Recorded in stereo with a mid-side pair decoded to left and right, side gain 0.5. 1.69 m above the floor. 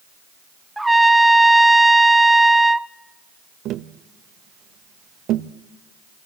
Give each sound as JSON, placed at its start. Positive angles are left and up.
{"t": 0.8, "sound": "a trumpet", "azimuth_deg": -10, "distance_m": 0.5}
{"t": 3.6, "sound": "tapping", "azimuth_deg": -70, "distance_m": 0.7}